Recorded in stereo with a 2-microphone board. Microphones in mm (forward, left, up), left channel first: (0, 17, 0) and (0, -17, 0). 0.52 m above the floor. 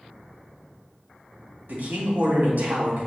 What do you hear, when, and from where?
1.7 s a man speaking: 75° right (ahead or behind), 3.5 m